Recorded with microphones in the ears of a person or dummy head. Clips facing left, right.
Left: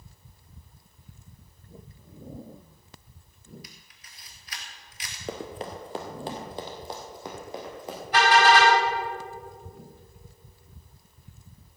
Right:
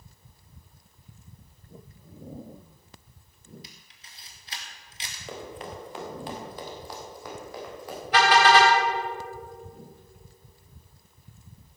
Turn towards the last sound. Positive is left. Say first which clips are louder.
# even
turn(degrees=-65)  # may be behind; listen again after turning